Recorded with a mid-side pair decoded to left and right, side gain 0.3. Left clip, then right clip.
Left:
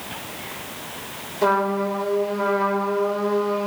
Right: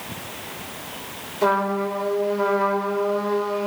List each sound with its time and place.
1.4 s a trumpet: 5° right, 7 m